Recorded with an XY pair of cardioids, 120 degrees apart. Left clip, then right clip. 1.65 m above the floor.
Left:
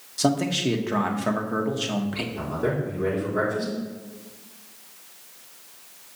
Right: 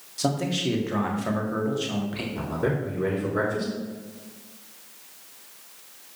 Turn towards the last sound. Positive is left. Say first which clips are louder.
# even
turn(degrees=-30)